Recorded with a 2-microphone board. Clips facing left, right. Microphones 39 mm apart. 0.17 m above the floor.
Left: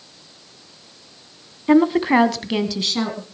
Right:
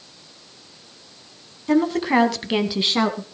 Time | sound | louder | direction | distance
1.7 | a woman speaking | left 4 dB | 30° left (ahead or behind) | 1.6 m